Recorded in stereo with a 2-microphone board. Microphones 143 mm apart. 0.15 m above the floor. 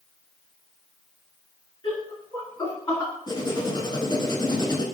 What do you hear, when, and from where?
1.8 s laughter: 40° left (ahead or behind), 2 m; by 3.1 s 20° left (ahead or behind), 1.8 m
3.3 s writing: 30° left (ahead or behind), 0.7 m